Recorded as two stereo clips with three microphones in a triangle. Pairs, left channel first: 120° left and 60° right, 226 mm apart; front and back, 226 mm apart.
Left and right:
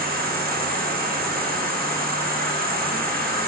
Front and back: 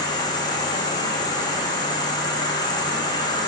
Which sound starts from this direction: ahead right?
An insect, at 0.0 s.